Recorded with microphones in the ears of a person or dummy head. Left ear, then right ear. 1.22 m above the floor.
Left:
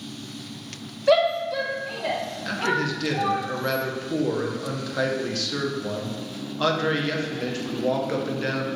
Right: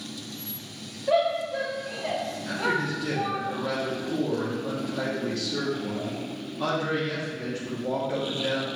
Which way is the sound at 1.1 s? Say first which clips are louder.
Left 4 dB; 45° left (ahead or behind).